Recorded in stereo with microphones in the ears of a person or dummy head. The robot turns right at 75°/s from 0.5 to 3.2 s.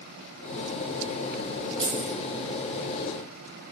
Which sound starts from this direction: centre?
Keys jangling, at 1.8 s.